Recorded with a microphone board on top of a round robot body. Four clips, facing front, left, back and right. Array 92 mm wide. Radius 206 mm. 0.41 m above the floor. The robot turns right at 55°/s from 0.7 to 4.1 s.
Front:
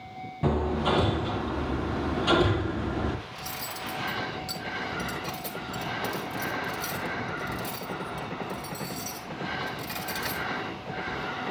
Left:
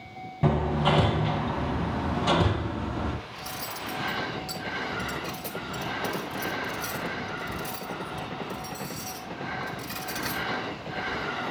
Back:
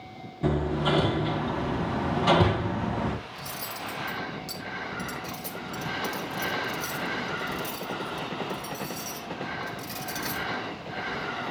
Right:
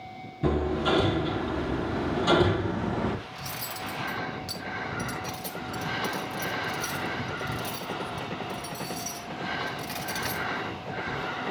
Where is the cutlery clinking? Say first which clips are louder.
Left 1 dB, even; 110° right, 2.5 m; by 11.2 s 70° right, 2.5 m.